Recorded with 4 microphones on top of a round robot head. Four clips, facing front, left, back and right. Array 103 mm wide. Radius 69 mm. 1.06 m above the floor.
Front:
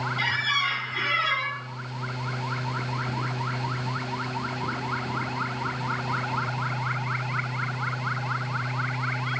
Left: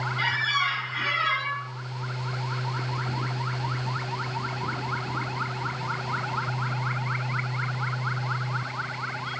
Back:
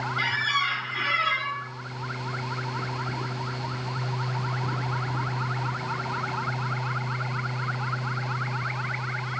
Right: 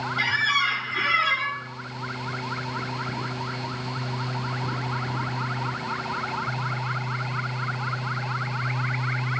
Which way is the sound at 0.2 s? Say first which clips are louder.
Right 2 dB, back 2 dB; 95° right.